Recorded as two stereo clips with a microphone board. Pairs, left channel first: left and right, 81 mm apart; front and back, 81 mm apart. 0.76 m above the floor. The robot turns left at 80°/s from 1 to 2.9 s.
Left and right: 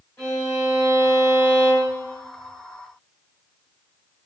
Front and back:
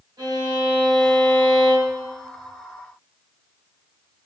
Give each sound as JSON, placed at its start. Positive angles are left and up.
{"t": 0.2, "sound": "a violin", "azimuth_deg": 150, "distance_m": 1.8}